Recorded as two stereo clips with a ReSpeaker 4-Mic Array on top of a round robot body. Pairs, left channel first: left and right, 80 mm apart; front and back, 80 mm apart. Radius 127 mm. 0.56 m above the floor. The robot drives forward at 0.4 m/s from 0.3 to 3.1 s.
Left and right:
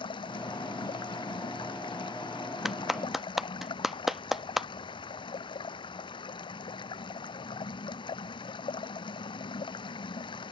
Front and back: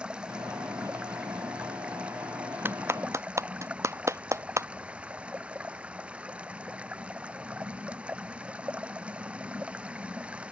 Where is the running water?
100° left; by 10.5 s 105° left.